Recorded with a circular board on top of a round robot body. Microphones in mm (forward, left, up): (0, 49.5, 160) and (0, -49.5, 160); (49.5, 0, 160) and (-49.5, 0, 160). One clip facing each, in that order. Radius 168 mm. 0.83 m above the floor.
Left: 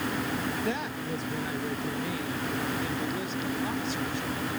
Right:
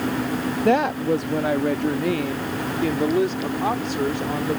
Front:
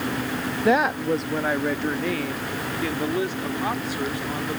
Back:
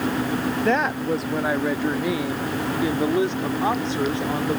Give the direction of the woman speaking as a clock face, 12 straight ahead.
3 o'clock.